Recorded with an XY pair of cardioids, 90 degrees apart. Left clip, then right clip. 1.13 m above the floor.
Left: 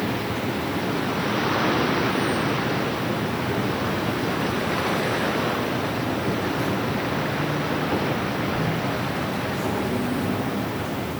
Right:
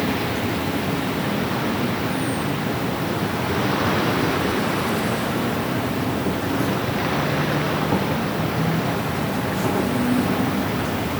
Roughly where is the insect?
Ahead right.